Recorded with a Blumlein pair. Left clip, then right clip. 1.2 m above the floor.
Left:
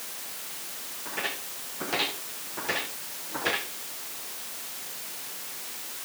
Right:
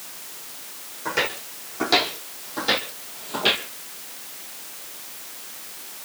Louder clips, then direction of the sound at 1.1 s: Right 8 dB; 45° right.